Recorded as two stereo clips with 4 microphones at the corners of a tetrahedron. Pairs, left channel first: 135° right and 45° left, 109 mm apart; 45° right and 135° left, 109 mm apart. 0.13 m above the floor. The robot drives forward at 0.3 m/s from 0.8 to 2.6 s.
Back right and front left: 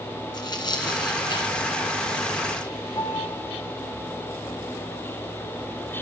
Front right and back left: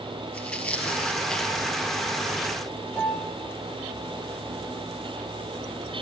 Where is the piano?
130° right, 2 m.